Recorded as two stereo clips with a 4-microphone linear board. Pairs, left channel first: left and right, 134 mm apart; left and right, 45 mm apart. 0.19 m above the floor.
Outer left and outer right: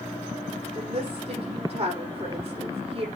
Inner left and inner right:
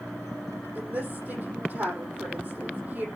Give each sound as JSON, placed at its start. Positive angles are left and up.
{"t": 0.8, "sound": "a woman speaking", "side_deg": -45, "distance_m": 5.5}